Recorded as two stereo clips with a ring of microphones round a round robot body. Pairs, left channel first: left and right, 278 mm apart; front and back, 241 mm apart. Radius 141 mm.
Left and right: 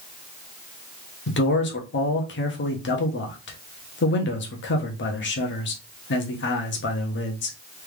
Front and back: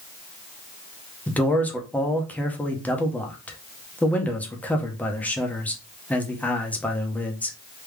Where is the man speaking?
80° left, 1.1 m.